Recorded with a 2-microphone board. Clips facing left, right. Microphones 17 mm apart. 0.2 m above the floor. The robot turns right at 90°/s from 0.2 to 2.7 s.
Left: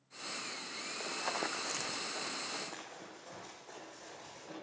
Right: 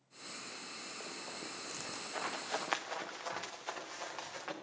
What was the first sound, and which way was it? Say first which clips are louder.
Running footsteps: left 12 dB; 20° left (ahead or behind).